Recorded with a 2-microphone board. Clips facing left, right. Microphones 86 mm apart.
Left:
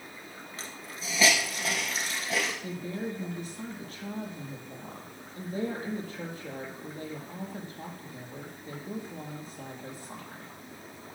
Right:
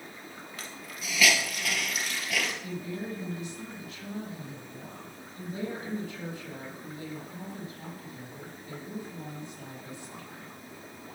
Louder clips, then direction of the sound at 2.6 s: Left 1 dB; 40° left (ahead or behind).